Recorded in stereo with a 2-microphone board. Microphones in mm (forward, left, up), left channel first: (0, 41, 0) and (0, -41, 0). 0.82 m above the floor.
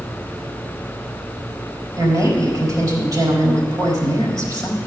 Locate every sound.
2.0 s a woman speaking: 50° right (ahead or behind), 4.5 m